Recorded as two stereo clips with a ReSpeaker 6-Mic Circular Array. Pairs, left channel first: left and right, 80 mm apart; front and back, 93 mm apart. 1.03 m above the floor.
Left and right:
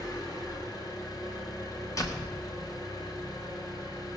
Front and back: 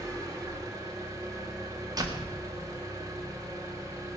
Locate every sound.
0.0 s an engine running: 125° left, 3.5 m
2.0 s a door slam: 135° left, 1.7 m